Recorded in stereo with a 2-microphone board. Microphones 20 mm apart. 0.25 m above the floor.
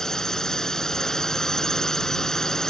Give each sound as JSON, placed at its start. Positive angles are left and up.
{"t": 0.0, "sound": "a drone", "side_deg": 30}